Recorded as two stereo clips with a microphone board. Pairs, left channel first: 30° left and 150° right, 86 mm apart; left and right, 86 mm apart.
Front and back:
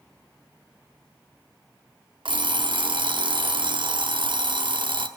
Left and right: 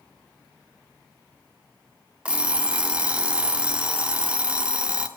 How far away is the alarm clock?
About 0.7 m.